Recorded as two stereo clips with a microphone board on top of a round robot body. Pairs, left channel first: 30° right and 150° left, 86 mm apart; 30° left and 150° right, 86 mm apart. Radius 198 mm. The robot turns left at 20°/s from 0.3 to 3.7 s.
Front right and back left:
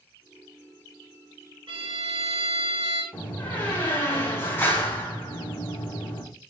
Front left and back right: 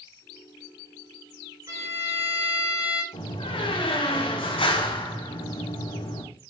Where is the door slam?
45° left, 3 m; by 6.2 s 35° left, 3 m.